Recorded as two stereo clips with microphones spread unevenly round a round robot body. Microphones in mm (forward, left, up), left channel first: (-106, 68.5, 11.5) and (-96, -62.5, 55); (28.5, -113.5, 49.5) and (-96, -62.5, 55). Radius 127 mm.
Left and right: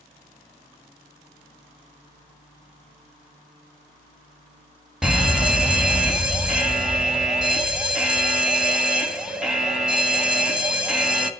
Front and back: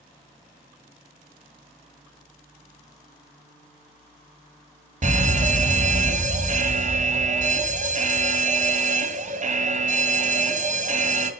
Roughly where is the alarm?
Behind.